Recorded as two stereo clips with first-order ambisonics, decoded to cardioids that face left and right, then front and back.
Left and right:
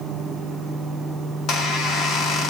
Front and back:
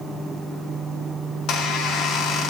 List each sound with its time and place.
1.3 s a squeak: 45° left, 1.0 m